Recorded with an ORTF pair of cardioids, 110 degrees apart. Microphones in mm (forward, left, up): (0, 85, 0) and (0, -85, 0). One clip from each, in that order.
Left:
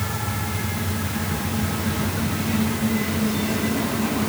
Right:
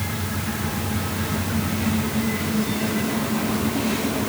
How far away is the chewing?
I don't hear chewing.